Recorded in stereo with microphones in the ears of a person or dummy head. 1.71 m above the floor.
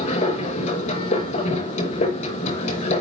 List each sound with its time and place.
0.0 s a machine running: 40° left (ahead or behind), 5.5 m